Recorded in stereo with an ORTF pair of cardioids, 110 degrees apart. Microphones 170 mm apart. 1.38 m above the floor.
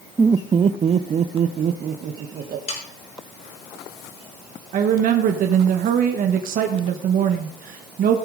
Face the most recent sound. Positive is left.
turn(degrees=-60)